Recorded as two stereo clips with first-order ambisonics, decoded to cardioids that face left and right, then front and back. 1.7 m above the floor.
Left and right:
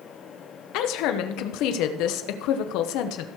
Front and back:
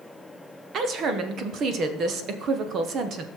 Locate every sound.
0.7 s a woman speaking: 120° left, 1.1 m